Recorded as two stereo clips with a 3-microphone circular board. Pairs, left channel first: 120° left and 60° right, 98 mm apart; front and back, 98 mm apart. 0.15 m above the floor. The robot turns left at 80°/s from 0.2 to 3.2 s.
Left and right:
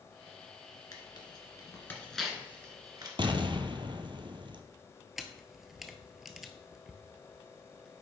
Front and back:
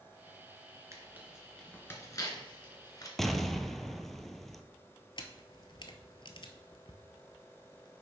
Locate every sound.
0.9 s tearing paper: 135° left, 1.5 m; by 3.1 s 40° right, 1.5 m
3.2 s an explosion: 85° right, 0.6 m; by 4.6 s 90° right, 0.6 m
5.2 s a camera shutter: 25° left, 0.8 m